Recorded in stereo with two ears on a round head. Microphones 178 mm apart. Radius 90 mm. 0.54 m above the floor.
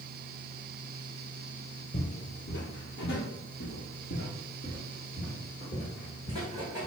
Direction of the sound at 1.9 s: 45° left (ahead or behind).